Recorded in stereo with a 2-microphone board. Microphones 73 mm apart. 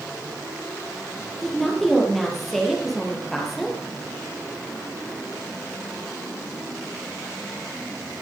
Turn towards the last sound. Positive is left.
turn(degrees=0)  # may be behind; listen again after turning